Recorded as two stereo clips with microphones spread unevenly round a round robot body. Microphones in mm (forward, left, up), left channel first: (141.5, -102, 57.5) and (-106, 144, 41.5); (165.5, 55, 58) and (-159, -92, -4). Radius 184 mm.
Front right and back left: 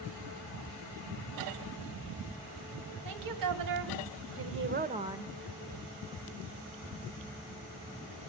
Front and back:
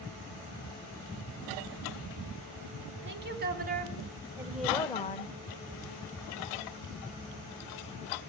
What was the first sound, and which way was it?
A woman speaking, 150° left.